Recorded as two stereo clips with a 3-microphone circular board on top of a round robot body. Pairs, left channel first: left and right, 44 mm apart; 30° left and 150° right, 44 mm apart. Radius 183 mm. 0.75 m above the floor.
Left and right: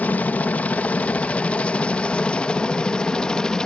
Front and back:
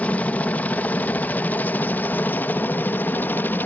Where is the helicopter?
65° left; by 3.7 s 25° left.